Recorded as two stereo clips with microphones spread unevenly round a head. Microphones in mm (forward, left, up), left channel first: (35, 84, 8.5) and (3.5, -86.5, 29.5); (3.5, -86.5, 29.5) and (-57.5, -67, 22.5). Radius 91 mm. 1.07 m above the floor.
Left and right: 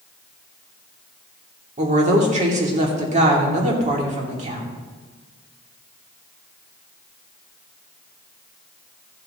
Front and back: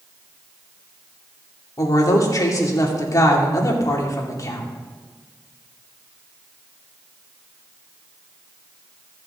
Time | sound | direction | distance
1.8 | a woman speaking | 50° right | 2.5 m